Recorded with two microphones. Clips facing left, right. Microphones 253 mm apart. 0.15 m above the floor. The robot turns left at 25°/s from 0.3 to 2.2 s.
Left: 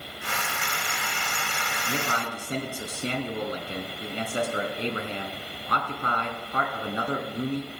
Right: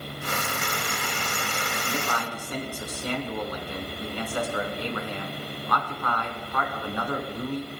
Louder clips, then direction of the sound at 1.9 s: Left 2 dB; 30° left (ahead or behind).